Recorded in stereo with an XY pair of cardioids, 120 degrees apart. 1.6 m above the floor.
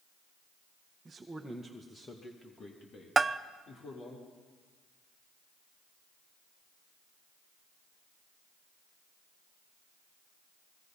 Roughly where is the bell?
Ahead right.